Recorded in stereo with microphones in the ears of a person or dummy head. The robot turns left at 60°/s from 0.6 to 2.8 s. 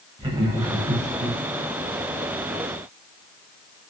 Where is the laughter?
25° right, 0.8 m; by 1.4 s 75° right, 0.8 m.